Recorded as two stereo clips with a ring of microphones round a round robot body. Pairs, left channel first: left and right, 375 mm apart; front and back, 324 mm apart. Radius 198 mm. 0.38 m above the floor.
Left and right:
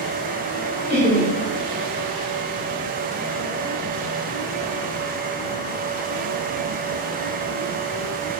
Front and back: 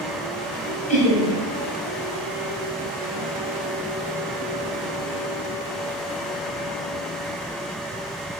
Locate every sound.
0.9 s laughter: 40° left, 1.2 m